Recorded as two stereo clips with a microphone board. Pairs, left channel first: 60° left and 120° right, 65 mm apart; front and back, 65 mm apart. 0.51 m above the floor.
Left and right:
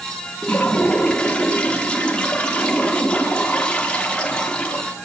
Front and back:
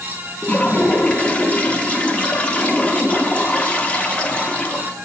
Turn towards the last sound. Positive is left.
turn(degrees=25)